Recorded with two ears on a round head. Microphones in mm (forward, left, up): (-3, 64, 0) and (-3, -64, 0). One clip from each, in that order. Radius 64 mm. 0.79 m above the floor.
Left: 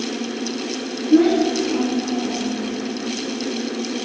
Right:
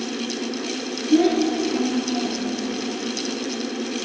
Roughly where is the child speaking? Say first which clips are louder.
Left 3 dB; right.